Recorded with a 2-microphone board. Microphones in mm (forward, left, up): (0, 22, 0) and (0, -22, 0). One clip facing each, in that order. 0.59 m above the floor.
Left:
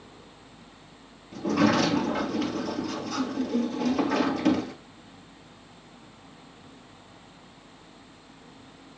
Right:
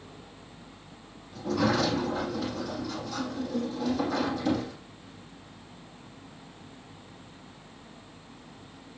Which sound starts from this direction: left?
A sliding door, at 1.3 s.